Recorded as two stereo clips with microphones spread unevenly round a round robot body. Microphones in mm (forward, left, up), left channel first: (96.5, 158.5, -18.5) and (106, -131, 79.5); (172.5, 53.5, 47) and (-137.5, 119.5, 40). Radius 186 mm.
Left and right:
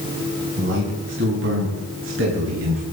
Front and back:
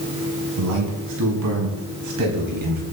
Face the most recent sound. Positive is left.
turn(degrees=-145)